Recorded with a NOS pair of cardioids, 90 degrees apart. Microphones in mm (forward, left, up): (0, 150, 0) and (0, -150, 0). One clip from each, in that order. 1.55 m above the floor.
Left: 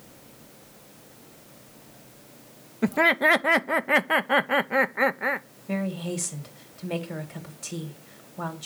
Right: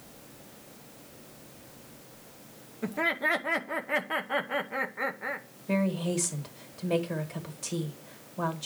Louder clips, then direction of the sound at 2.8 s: Left 8 dB; 40° left.